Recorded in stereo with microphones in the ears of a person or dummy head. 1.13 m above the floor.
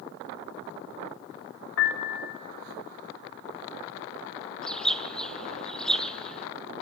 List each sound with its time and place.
1.8 s a piano: 80° left, 1.8 m
4.6 s a bird: 5° left (ahead or behind), 1.0 m